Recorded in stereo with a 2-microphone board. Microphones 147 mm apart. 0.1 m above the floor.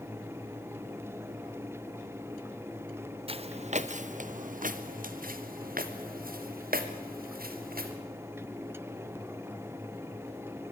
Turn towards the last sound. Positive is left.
turn(degrees=-85)